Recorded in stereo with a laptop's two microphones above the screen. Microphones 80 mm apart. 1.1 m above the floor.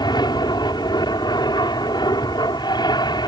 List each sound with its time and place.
0.0 s an aircraft: 65° left (ahead or behind)